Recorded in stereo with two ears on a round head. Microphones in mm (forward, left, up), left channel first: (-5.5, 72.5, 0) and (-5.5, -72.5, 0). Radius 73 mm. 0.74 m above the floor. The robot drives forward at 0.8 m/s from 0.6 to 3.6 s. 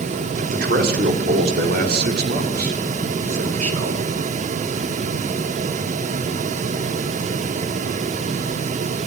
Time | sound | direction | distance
0.4 | a man speaking | 55° right (ahead or behind) | 2.5 m